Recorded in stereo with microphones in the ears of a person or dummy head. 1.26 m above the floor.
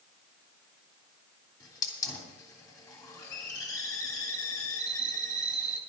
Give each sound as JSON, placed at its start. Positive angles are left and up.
{"t": 1.6, "sound": "a hiss", "side_deg": 20, "distance_m": 3.0}